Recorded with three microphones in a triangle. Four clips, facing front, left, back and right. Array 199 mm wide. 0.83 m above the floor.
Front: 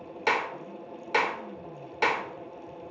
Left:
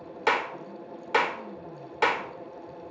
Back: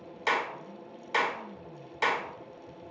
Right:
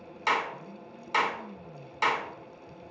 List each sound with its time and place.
0.3 s a clap: 55° left, 1.8 m